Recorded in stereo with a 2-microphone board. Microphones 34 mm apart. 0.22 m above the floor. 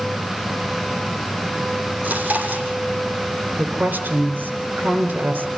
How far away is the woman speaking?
About 3.5 m.